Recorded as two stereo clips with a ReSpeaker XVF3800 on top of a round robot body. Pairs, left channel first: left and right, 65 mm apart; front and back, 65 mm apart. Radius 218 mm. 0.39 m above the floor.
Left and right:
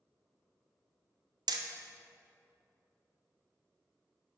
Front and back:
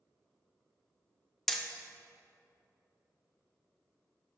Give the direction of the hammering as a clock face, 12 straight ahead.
3 o'clock.